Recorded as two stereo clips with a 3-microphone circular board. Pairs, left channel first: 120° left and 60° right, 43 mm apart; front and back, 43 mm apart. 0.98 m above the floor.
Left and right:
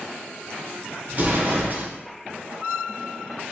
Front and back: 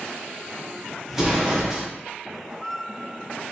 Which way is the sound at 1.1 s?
100° right.